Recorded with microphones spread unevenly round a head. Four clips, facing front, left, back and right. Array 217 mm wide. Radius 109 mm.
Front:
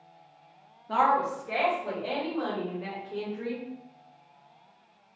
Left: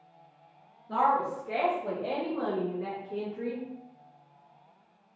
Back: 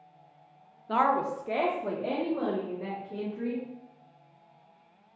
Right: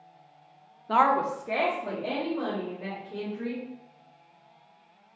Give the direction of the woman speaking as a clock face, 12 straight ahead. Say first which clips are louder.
Right 3 dB, front 1 dB; 3 o'clock.